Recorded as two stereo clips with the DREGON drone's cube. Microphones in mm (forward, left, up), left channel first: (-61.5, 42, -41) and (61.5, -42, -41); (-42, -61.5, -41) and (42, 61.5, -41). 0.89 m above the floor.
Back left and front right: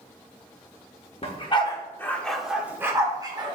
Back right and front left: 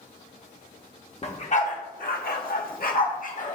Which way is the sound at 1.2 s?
170° right.